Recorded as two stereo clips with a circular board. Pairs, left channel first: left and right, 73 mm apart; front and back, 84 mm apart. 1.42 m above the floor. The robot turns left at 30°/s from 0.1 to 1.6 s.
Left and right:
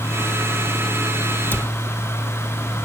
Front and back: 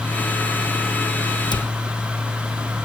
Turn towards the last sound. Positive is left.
turn(degrees=25)